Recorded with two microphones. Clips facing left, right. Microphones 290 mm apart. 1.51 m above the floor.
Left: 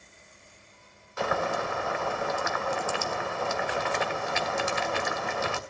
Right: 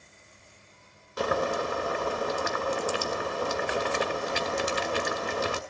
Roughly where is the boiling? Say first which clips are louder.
Right 2 dB; right.